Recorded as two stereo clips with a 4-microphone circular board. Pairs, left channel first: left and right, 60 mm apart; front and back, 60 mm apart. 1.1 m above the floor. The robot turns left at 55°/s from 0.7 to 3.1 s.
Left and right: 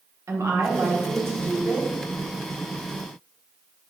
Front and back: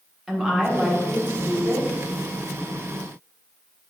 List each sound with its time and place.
0.3 s a woman speaking: 95° right, 1.0 m; by 1.9 s 160° right, 1.0 m